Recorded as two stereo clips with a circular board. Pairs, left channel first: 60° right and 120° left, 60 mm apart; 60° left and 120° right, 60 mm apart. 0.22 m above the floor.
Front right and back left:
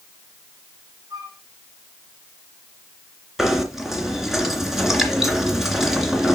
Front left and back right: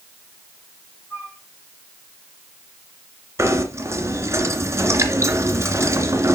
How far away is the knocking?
About 2.5 m.